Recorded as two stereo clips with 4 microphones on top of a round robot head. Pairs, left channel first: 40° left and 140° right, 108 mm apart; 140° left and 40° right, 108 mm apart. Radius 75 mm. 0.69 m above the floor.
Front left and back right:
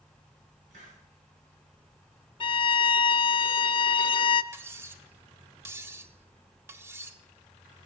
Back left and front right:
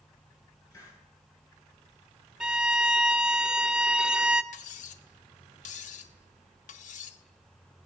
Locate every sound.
0.7 s a hiss: 160° right, 5.5 m
2.4 s a violin: 45° left, 0.5 m
4.5 s cutlery clinking: 150° left, 0.7 m